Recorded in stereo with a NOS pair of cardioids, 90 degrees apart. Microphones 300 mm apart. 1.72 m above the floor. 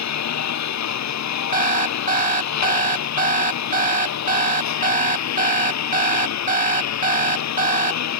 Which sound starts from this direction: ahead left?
A lawn mower, at 0.0 s.